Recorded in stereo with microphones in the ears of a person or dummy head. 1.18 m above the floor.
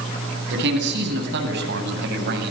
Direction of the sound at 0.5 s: 70° right (ahead or behind).